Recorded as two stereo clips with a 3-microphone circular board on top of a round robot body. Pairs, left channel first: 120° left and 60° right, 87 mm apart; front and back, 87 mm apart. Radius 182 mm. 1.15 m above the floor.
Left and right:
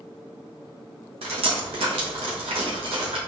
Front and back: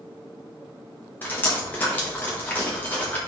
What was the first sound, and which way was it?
Dripping, 70° right.